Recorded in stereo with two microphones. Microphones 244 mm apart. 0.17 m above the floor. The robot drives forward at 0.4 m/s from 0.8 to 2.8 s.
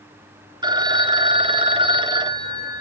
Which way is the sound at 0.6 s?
20° right (ahead or behind).